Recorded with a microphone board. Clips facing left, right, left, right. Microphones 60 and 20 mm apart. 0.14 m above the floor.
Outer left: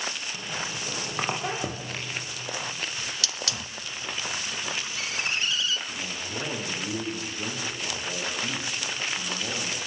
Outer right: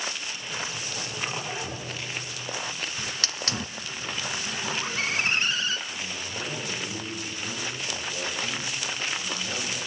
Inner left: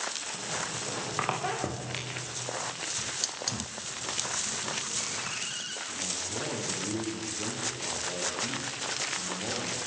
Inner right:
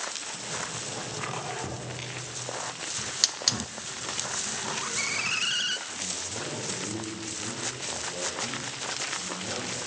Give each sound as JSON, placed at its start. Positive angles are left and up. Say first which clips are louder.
{"t": 0.3, "sound": "a squeak", "louder": "outer left 1 dB, even", "side_deg": 70, "distance_m": 8.5}
{"t": 3.0, "sound": "a hiss", "louder": "outer right 1 dB, inner right 10 dB", "side_deg": -40, "distance_m": 0.6}
{"t": 5.9, "sound": "a man speaking", "louder": "outer left 1 dB, even", "side_deg": 50, "distance_m": 9.5}